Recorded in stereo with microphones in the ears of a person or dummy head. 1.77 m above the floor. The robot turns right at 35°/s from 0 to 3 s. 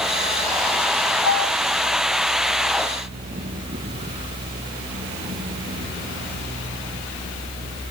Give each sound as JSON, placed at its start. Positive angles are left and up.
{"t": 1.2, "sound": "a piano", "side_deg": 85, "distance_m": 6.0}